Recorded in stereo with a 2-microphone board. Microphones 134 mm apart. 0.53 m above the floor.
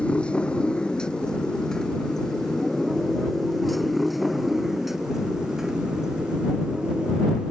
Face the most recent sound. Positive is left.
turn(degrees=-5)  # may be behind; listen again after turning